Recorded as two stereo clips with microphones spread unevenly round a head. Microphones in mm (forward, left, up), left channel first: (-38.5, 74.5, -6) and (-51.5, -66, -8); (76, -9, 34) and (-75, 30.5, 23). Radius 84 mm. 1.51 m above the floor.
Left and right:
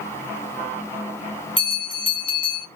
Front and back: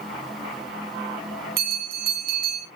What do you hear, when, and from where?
1.6 s a bell: 135° left, 3.5 m